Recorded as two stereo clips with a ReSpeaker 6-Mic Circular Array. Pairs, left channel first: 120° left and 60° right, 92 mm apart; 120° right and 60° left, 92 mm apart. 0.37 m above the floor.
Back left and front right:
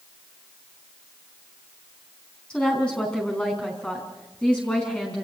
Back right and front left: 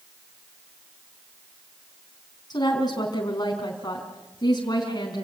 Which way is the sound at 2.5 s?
160° right.